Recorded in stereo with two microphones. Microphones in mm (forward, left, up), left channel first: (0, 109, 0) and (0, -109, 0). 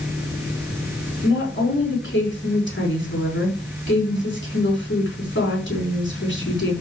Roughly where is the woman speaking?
Left.